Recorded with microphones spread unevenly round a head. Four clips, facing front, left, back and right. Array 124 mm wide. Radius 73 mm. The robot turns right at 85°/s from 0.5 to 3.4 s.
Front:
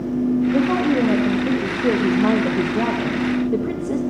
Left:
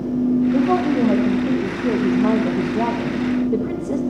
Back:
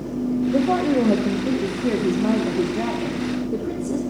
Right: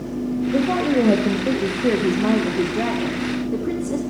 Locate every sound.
0.5 s a woman speaking: 170° right, 1.9 m; by 4.0 s 70° left, 1.9 m